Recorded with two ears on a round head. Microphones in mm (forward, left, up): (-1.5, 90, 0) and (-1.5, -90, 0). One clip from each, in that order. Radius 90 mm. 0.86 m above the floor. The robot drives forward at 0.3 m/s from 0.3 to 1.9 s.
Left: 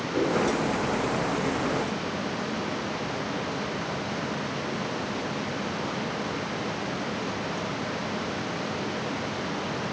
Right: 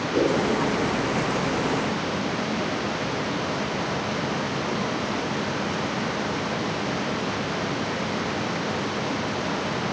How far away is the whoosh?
About 7.5 m.